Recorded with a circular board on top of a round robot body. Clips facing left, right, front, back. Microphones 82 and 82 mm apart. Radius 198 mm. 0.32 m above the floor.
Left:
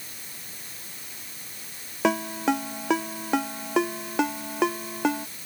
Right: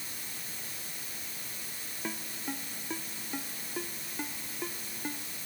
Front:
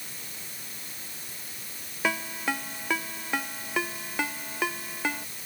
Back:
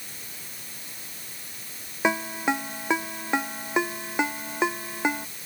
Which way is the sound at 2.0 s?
110° left.